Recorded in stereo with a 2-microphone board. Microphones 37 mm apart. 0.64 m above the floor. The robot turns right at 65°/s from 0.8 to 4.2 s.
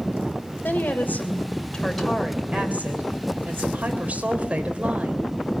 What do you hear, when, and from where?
0.6 s a woman speaking: 100° left, 3 m; by 5.3 s 40° right, 3 m